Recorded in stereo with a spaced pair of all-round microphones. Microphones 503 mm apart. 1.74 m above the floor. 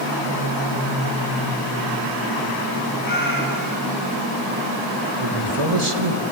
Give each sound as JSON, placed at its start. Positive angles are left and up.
{"t": 3.0, "sound": "a cat meowing", "side_deg": 40, "distance_m": 8.0}
{"t": 5.2, "sound": "a man speaking", "side_deg": -80, "distance_m": 3.0}